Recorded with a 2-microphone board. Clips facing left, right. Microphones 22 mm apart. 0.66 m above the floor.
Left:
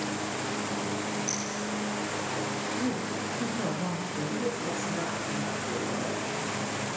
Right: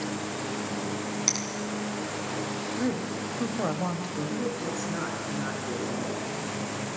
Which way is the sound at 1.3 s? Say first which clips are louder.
Right 4 dB; 80° right.